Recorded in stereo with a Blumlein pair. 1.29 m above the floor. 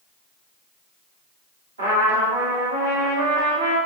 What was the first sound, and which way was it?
A trumpet, 65° right.